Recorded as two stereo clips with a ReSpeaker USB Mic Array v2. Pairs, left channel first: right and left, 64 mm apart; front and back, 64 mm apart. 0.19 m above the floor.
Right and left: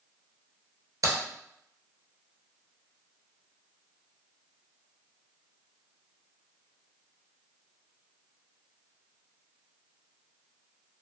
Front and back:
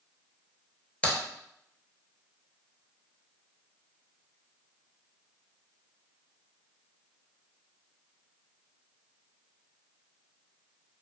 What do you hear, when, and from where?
1.0 s a crack: 70° left, 0.9 m